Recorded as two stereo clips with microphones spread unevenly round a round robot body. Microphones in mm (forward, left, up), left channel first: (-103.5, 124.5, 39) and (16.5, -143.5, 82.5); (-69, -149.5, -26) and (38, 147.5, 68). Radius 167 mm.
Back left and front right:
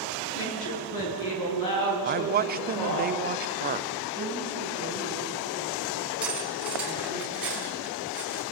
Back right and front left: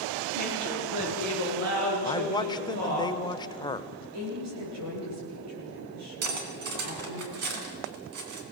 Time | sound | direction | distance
0.3 | a woman speaking | 110° left | 8.5 m
2.0 | a man speaking | 110° right | 0.8 m
4.1 | a woman speaking | 25° left | 8.5 m
6.2 | cutlery clinking | 20° left | 3 m